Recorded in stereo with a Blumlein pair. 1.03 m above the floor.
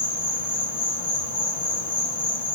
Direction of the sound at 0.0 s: 70° left.